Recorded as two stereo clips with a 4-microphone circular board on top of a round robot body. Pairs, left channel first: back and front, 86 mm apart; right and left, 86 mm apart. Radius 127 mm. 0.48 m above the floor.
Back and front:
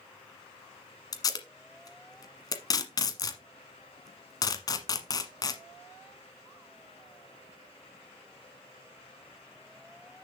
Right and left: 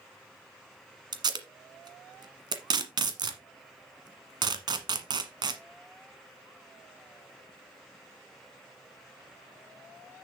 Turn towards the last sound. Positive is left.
turn(degrees=130)